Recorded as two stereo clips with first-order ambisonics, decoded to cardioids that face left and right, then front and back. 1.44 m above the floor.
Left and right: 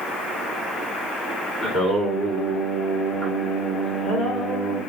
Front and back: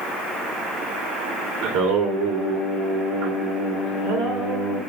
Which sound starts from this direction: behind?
Singing, at 1.6 s.